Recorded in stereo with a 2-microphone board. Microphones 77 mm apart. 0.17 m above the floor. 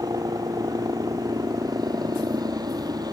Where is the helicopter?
60° right (ahead or behind).